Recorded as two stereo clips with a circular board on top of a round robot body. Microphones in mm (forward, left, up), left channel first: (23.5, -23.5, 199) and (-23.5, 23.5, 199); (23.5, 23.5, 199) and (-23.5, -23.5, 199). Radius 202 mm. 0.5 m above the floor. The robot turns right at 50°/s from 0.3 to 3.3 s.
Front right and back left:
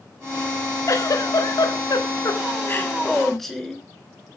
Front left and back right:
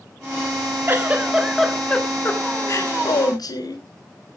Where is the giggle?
80° right, 3.5 m; by 3.8 s 40° left, 3.5 m.